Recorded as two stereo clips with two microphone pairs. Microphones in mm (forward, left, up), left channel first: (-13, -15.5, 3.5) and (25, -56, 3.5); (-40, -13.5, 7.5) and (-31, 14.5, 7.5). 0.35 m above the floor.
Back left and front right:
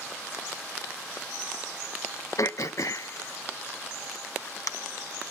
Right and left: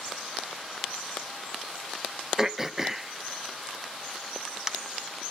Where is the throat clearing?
150° left, 0.5 m.